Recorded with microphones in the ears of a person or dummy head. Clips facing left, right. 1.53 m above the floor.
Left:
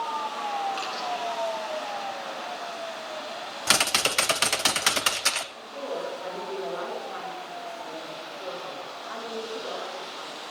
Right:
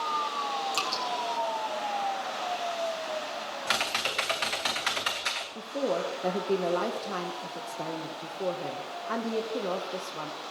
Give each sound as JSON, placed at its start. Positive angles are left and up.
{"t": 0.7, "sound": "dripping", "side_deg": -65, "distance_m": 2.5}
{"t": 3.7, "sound": "typing on a keyboard", "side_deg": 55, "distance_m": 0.9}
{"t": 5.5, "sound": "a woman speaking", "side_deg": -65, "distance_m": 1.1}